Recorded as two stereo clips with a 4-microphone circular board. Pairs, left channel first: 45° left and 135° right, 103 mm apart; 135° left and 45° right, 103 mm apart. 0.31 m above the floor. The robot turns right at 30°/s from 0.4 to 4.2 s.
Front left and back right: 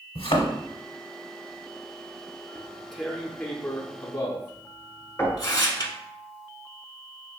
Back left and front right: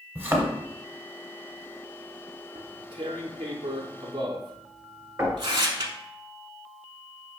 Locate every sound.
0.1 s a thud: 20° left, 0.9 m; by 0.5 s 25° left, 0.9 m
2.5 s tearing paper: 55° right, 0.6 m; by 5.9 s 5° right, 0.6 m
5.2 s knocking: 10° right, 1.5 m